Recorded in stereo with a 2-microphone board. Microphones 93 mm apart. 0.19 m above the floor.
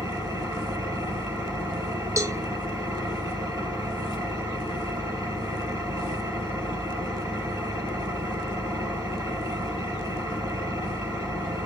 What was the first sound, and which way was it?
An engine running, 35° right (ahead or behind).